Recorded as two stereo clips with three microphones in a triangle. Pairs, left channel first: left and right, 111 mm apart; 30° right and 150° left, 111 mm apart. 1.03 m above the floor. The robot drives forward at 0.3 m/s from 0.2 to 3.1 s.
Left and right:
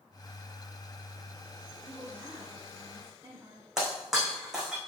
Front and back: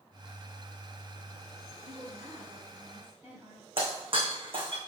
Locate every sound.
1.8 s a woman speaking: 160° right, 3 m
3.8 s breaking glass: 175° right, 4 m